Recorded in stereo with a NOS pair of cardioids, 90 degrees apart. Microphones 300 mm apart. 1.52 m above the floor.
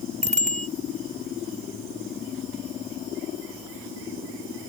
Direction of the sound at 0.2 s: 25° right.